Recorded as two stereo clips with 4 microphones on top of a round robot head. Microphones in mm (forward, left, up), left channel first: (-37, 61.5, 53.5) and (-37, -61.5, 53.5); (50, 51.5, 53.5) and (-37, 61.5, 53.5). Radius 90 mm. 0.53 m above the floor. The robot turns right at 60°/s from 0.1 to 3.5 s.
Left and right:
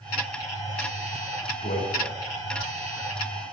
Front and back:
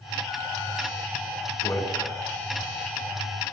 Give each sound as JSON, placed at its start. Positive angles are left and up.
{"t": 1.6, "sound": "a man speaking", "azimuth_deg": 45, "distance_m": 7.0}